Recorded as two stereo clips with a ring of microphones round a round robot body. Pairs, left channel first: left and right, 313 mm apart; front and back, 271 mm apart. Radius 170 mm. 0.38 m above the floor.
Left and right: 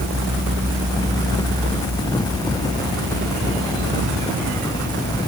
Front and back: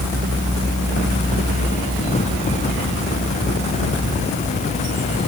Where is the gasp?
I don't hear a gasp.